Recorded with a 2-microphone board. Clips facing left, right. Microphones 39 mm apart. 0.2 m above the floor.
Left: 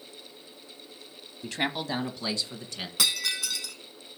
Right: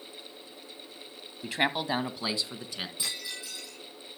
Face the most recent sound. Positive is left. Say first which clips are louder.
# left 9 dB
turn(degrees=80)